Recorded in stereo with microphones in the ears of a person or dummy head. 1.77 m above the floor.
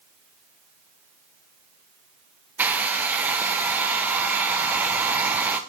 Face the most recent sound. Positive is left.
turn(degrees=-5)  # may be behind; listen again after turning